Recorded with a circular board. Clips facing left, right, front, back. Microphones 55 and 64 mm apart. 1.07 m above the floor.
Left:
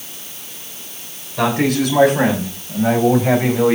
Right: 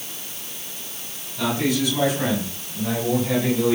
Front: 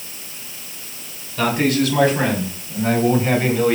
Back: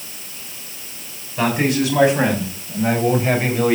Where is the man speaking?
110° left, 8 m; by 3.8 s 100° left, 6 m.